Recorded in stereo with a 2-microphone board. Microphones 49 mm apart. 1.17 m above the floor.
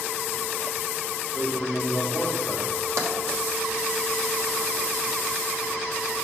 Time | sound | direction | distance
1.3 | a man speaking | 45° left (ahead or behind) | 3 m
3.0 | tapping | 80° right | 1.3 m